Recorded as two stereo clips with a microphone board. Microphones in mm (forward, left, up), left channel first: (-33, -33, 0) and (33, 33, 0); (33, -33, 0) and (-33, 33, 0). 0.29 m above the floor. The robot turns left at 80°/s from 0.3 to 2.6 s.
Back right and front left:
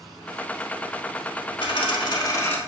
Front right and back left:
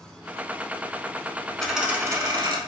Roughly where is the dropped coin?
Behind right.